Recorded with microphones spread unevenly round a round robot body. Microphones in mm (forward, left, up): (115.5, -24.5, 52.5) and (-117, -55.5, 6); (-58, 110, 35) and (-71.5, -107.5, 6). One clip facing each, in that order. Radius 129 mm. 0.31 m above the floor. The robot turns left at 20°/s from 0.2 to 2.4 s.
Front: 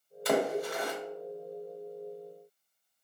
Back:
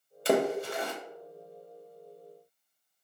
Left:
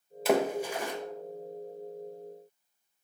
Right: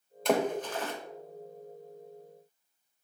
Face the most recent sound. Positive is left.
turn(degrees=135)